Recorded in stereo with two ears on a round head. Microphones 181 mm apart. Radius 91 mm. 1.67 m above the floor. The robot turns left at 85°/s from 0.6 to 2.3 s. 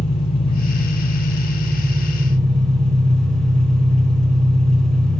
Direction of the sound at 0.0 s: 150° left.